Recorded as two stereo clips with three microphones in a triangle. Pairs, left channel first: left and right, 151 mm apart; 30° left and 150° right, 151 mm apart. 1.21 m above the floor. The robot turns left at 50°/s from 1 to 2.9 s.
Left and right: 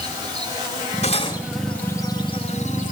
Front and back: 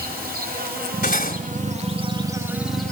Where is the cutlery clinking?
45° left, 2.5 m; by 1.4 s 30° left, 2.5 m.